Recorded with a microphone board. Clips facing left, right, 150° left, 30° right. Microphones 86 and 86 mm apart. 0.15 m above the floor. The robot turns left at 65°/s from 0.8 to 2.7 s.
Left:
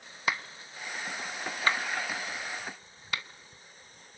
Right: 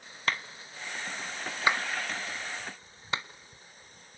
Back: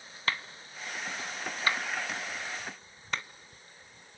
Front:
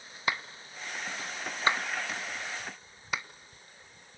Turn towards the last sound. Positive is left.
turn(degrees=-100)